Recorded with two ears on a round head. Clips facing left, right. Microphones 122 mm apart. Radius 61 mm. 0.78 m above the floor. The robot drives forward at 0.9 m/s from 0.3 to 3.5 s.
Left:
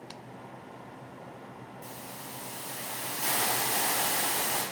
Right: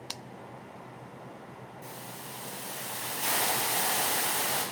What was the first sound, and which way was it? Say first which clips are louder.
A hiss: even; 15° left (ahead or behind).